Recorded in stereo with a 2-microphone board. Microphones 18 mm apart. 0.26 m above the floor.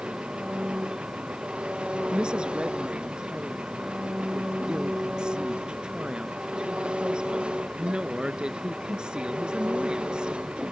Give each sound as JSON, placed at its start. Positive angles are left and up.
{"t": 0.0, "sound": "an engine running", "side_deg": -75}
{"t": 2.1, "sound": "a woman speaking", "side_deg": -55}